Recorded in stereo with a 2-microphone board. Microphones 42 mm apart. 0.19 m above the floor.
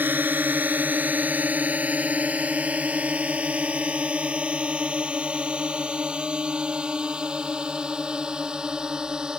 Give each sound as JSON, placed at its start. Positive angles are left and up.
{"t": 0.0, "sound": "a drone", "side_deg": -50}